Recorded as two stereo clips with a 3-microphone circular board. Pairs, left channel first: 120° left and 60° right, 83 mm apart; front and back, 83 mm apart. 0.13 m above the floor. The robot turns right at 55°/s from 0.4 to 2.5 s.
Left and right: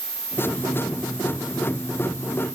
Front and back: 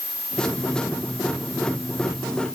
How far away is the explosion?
No explosion in this recording.